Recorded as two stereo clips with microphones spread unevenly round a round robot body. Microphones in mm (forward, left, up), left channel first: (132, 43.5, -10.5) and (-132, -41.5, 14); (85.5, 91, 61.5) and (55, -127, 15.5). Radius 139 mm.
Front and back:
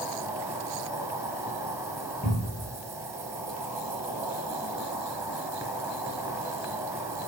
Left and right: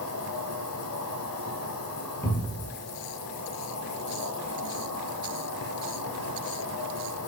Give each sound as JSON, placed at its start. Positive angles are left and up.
{"t": 0.0, "sound": "an insect", "azimuth_deg": 115, "distance_m": 0.9}
{"t": 2.2, "sound": "a cupboard door", "azimuth_deg": -10, "distance_m": 1.3}